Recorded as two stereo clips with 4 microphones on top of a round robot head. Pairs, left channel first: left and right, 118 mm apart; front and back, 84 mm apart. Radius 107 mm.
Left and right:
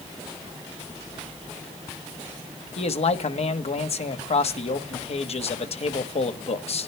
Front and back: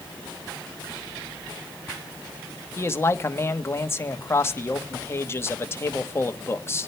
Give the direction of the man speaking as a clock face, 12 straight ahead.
10 o'clock.